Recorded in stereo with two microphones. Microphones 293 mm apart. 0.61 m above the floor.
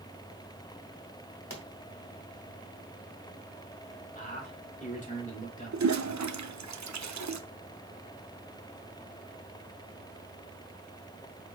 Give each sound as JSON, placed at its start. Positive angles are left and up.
{"t": 1.5, "sound": "a pop", "side_deg": 50, "distance_m": 1.2}
{"t": 4.2, "sound": "a man speaking", "side_deg": 25, "distance_m": 1.8}
{"t": 5.7, "sound": "a toilet flushing", "side_deg": -70, "distance_m": 0.6}